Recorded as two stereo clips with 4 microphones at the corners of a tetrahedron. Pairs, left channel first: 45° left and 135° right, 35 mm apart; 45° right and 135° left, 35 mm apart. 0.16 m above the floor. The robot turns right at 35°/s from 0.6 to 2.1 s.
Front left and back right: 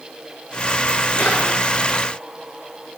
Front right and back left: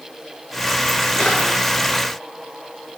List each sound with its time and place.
1.2 s a drawer: 10° left, 8 m; by 1.4 s 15° left, 8 m